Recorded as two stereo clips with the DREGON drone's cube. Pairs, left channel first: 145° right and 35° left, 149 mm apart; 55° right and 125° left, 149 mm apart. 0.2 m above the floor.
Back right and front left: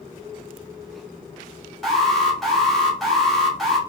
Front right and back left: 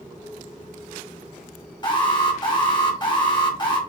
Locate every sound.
1.8 s an alarm: 55° right, 2 m